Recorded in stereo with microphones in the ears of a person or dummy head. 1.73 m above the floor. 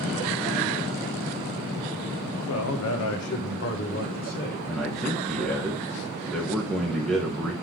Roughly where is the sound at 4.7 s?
Centre.